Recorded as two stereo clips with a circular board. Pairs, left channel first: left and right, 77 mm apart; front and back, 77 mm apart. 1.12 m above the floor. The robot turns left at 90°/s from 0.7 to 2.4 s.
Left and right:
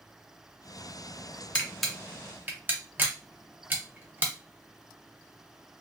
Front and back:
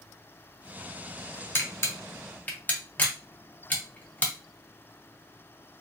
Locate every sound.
1.6 s a camera shutter: 30° left, 0.6 m; by 4.3 s 50° right, 0.6 m